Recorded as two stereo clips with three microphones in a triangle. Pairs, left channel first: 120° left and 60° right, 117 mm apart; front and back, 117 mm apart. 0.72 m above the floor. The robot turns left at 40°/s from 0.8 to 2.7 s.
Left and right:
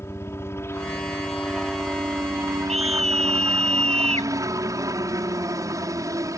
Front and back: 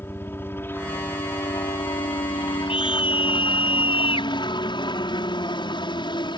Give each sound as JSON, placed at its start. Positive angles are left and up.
{"t": 0.0, "sound": "a helicopter", "azimuth_deg": 60}
{"t": 2.7, "sound": "a scream", "azimuth_deg": -40}